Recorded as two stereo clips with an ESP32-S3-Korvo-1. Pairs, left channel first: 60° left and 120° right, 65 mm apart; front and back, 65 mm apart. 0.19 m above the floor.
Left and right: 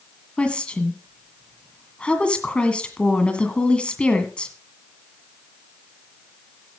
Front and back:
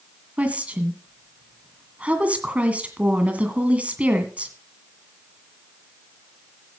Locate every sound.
0.4 s a woman speaking: 120° left, 1.9 m